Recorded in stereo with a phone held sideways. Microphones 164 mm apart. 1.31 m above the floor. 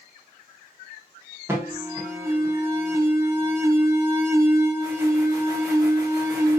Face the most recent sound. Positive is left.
turn(degrees=-15)  # may be behind; listen again after turning